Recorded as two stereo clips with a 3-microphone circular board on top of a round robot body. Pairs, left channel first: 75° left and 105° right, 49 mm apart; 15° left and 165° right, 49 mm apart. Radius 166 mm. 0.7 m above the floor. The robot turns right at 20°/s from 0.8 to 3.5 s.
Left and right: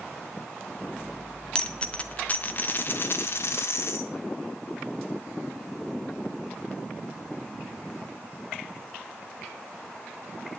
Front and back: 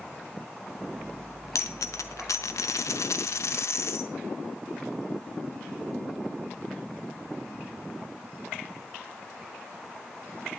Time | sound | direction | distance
1.6 | a dropped coin | 5° left | 0.5 m